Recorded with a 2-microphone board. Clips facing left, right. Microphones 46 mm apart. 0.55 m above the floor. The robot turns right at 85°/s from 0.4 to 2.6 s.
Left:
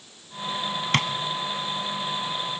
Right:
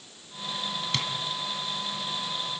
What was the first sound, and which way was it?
Tapping, 50° left (ahead or behind).